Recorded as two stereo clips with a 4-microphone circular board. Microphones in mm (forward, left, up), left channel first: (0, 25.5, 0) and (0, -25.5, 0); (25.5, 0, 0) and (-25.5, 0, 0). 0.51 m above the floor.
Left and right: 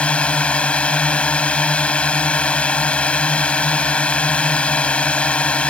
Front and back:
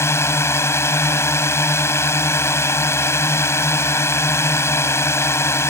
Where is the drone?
20° left.